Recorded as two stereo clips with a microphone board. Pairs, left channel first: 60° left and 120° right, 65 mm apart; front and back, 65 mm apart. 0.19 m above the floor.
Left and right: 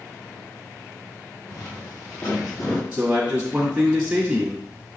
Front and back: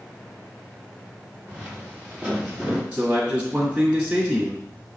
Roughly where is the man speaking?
Behind right.